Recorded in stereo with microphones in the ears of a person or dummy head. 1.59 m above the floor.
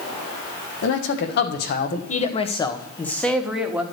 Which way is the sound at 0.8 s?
65° left (ahead or behind).